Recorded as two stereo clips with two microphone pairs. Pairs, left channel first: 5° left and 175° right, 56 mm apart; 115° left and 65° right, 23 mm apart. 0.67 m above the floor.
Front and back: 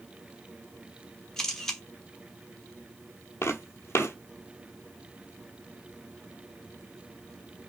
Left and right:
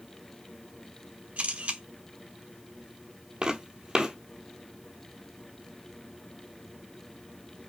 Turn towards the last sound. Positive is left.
turn(degrees=-20)